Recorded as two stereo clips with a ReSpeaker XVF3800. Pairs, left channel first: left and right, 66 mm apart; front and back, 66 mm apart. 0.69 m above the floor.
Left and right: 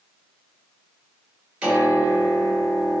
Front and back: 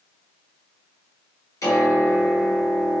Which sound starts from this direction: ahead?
A piano, at 1.6 s.